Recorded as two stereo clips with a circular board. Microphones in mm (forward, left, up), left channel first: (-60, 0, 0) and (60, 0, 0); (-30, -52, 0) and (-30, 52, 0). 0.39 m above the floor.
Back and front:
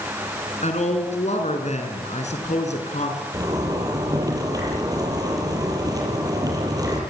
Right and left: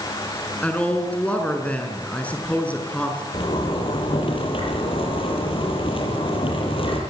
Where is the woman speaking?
165° right, 5.5 m.